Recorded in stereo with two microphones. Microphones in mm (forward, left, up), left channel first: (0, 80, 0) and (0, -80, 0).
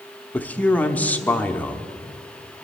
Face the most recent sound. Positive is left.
turn(degrees=10)  # may be behind; listen again after turning